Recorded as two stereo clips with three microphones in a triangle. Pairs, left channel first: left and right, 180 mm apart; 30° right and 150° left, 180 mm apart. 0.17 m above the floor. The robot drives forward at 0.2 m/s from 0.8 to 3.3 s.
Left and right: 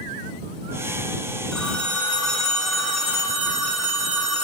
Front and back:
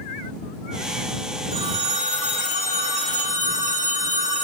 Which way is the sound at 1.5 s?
175° left.